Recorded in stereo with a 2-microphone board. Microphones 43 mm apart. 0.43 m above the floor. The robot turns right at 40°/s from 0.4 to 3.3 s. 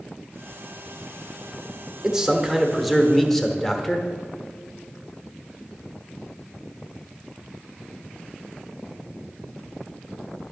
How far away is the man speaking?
About 1.1 m.